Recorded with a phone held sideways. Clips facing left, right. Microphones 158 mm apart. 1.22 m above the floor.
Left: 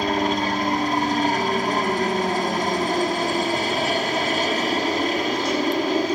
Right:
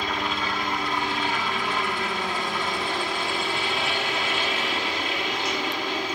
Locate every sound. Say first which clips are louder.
0.0 s a helicopter: left 7 dB; 40° left (ahead or behind)